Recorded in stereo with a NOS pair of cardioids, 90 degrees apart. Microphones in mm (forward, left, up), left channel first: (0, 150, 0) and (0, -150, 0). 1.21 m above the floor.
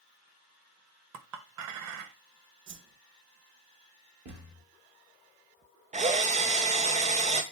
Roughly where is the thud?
Ahead right.